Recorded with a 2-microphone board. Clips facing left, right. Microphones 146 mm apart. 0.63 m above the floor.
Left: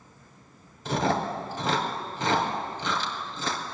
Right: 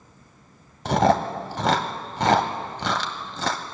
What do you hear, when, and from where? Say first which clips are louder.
0.8 s chewing: right 6 dB; 70° right (ahead or behind), 1.0 m